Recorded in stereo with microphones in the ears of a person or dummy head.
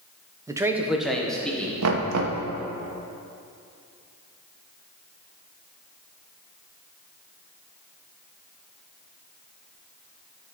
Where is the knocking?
90° right, 1.1 m.